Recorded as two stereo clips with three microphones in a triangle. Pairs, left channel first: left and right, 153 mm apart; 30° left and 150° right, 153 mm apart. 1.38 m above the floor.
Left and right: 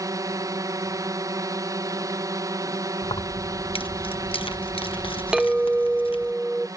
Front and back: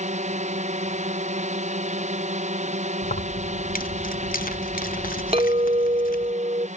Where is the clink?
175° right.